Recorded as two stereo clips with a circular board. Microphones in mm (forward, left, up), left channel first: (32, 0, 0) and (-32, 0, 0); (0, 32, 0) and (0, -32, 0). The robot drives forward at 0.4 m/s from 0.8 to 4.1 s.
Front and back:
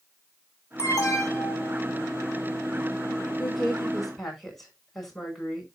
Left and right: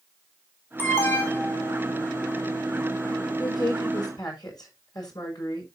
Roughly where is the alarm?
Ahead left.